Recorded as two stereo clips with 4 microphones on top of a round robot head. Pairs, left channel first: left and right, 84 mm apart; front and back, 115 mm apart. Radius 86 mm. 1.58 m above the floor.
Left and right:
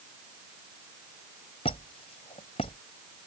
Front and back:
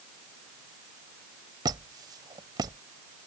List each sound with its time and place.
1.6 s a squeak: 130° left